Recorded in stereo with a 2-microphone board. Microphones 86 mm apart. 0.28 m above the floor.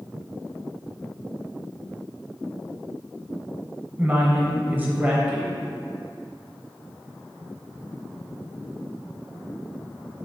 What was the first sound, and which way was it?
A woman speaking, 20° right (ahead or behind).